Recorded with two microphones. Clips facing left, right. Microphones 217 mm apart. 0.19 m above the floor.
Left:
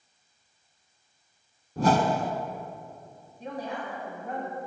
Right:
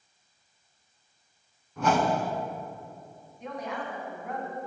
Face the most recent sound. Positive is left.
turn(degrees=35)  # may be behind; listen again after turning